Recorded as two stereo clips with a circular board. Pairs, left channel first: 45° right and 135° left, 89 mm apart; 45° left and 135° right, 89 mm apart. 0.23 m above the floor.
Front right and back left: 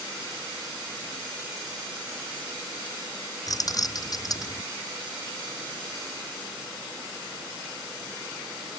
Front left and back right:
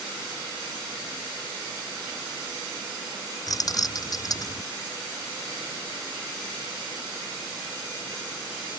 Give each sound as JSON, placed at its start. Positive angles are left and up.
{"t": 3.5, "sound": "keys jangling", "azimuth_deg": 0}